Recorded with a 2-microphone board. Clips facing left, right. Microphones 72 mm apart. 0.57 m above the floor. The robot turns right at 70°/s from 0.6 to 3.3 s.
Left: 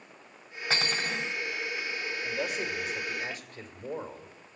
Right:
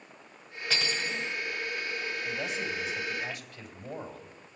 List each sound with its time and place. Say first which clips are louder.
0.7 s cutlery clinking: left 2 dB; 35° left, 1.1 m; by 1.3 s 80° left, 1.1 m
2.2 s a man speaking: left 3 dB; 45° left, 2 m; by 4.5 s 120° left, 2 m